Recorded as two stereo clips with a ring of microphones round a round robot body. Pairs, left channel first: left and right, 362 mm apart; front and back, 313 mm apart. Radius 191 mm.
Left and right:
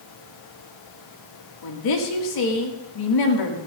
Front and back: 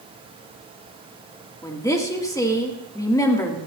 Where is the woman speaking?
80° left, 2.5 m.